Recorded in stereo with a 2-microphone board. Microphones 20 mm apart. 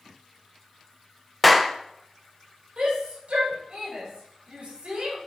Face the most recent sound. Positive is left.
turn(degrees=-70)  # may be behind; listen again after turning